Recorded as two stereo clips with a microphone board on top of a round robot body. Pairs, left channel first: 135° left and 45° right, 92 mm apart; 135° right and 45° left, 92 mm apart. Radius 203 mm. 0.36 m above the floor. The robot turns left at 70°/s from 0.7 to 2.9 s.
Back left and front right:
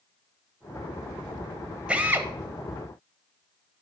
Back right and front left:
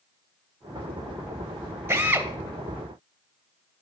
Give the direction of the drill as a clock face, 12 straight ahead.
11 o'clock.